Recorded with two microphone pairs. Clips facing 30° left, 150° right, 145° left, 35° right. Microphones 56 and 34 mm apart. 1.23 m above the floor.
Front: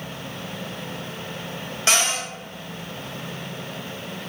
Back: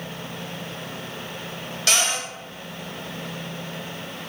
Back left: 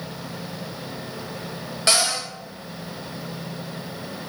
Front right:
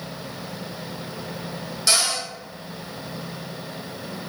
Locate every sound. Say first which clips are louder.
1.9 s a cupboard door: front 1 dB, back left 1 dB; 90° left, 0.8 m